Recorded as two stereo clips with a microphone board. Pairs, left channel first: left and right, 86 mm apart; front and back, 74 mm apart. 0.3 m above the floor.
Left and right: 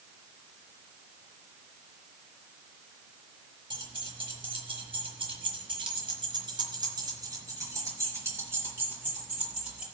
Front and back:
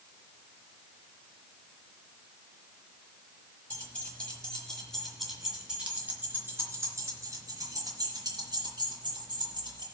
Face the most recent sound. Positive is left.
turn(degrees=-165)